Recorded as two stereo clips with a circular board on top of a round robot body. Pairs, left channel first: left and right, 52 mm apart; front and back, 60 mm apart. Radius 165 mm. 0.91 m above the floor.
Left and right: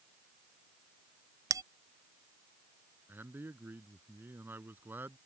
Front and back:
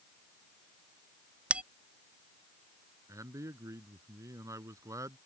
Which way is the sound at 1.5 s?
110° right.